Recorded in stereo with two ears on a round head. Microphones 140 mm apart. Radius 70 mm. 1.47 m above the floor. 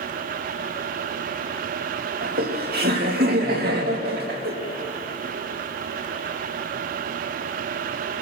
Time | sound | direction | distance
2.2 | laughter | 70° right (ahead or behind) | 2.5 m